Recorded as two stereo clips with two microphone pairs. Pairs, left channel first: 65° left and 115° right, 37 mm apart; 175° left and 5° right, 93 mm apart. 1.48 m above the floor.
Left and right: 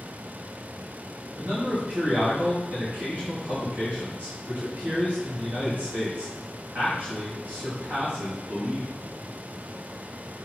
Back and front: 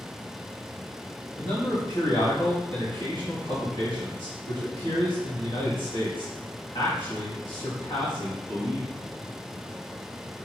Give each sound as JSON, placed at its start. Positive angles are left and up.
{"t": 1.4, "sound": "a man speaking", "azimuth_deg": -155, "distance_m": 3.0}